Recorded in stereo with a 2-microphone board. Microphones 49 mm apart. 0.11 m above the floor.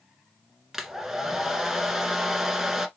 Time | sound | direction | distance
0.7 | a hair dryer | 10° right (ahead or behind) | 0.9 m